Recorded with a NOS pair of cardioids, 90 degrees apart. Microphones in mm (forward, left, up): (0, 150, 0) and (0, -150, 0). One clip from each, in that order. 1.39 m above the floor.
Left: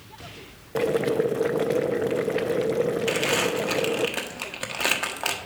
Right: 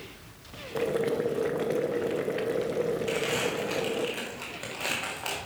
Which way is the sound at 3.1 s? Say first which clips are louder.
Left 5 dB; 55° left.